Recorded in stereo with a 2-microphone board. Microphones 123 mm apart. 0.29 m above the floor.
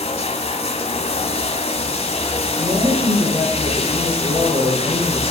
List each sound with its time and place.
0.0 s running water: 60° left (ahead or behind), 1.3 m
2.6 s a woman speaking: 50° right (ahead or behind), 6 m